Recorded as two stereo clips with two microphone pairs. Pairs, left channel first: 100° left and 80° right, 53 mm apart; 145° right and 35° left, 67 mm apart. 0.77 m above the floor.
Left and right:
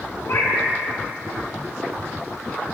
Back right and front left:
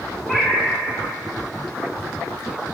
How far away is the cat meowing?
About 1.5 m.